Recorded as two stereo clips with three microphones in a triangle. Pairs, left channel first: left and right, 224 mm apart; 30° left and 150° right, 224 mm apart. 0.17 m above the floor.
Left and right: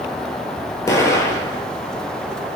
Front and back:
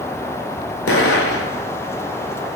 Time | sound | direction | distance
0.9 | an explosion | 15° left | 0.5 m